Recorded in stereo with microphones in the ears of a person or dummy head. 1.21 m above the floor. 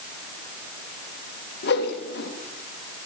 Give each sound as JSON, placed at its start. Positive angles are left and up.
{"t": 1.6, "sound": "a whoosh", "side_deg": 60, "distance_m": 1.3}